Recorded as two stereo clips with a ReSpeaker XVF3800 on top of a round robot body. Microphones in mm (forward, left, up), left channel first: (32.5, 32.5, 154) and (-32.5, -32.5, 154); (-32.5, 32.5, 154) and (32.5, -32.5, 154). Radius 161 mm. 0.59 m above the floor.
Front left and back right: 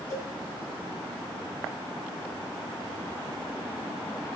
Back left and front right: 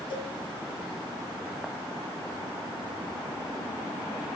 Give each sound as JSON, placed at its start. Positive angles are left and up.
{"t": 0.1, "sound": "a cowbell", "azimuth_deg": 105, "distance_m": 6.0}